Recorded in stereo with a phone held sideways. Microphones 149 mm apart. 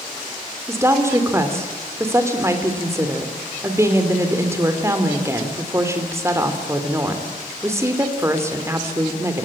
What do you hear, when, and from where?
0.7 s a woman speaking: 20° right (ahead or behind), 3 m